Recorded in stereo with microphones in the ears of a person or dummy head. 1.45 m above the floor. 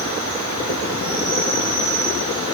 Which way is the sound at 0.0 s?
45° right (ahead or behind).